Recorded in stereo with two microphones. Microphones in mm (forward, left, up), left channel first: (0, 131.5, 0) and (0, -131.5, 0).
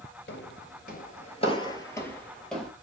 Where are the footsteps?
45° left (ahead or behind), 0.9 m; by 2.7 s centre (ahead or behind), 1.5 m.